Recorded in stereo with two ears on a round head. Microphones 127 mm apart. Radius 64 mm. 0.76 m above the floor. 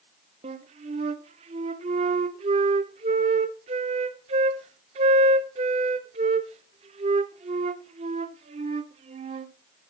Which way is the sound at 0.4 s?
45° right (ahead or behind).